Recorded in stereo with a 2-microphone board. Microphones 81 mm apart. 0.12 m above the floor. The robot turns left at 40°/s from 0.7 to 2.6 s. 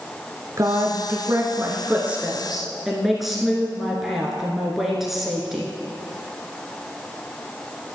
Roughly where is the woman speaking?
Right.